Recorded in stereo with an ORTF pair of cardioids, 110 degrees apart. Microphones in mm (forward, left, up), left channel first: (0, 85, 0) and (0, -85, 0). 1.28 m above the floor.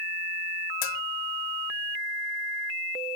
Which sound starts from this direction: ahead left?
A bell, at 0.8 s.